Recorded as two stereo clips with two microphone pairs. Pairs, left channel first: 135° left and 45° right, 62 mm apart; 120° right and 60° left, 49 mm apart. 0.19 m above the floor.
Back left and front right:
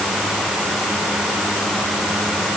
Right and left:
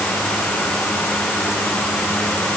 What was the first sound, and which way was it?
Only background noise.